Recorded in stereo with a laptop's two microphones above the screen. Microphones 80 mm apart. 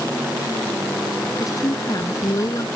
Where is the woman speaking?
45° left (ahead or behind).